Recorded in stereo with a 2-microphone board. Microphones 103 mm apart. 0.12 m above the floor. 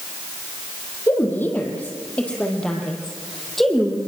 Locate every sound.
1.1 s a woman speaking: 20° left (ahead or behind), 4.5 m; by 4.0 s centre (ahead or behind), 5 m